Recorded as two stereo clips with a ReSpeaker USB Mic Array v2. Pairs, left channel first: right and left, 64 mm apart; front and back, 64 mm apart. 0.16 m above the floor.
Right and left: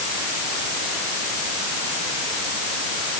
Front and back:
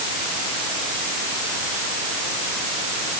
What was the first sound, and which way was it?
Only background noise.